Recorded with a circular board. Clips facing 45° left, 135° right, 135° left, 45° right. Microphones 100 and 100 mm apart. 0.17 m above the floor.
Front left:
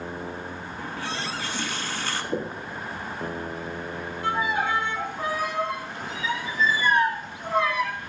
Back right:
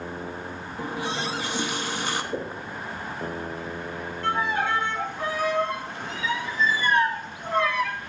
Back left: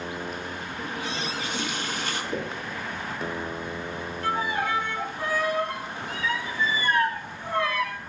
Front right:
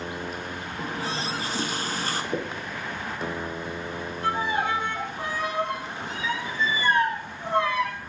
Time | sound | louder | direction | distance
0.8 | a running tap | back right 4 dB, front right 2 dB | 70° right | 0.9 m
2.3 | knocking | front left 2 dB, front right 1 dB | 20° left | 5 m
4.2 | a violin | even, front right 1 dB | 20° right | 1.4 m